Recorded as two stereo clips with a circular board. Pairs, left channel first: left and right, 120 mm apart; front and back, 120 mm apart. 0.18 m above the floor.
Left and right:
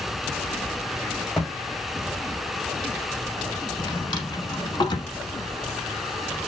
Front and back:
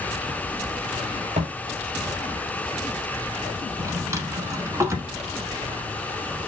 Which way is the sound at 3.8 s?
125° left.